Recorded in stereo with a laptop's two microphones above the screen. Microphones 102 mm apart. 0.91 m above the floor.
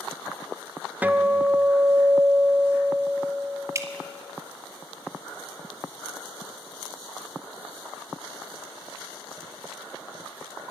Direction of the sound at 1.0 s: 15° right (ahead or behind).